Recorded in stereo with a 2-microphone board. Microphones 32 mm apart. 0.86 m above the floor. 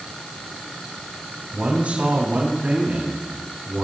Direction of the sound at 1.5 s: 45° right (ahead or behind).